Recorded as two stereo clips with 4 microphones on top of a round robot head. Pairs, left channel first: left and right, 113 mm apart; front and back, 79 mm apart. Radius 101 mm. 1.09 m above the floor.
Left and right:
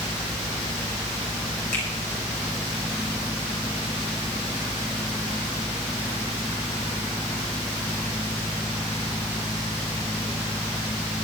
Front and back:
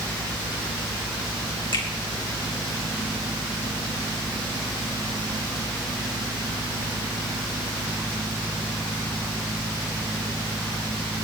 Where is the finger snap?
10° left, 5 m.